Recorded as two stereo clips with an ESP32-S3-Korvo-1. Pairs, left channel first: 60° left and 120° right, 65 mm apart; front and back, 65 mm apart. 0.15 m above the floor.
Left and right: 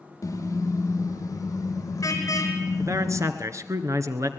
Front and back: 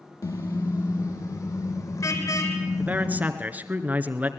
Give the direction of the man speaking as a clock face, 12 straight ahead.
4 o'clock.